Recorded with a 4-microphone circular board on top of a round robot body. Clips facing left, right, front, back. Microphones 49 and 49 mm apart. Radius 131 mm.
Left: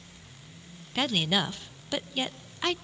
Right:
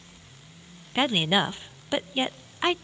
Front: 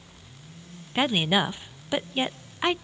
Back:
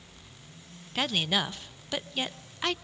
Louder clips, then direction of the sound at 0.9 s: Right 4 dB, front 5 dB; 45° right.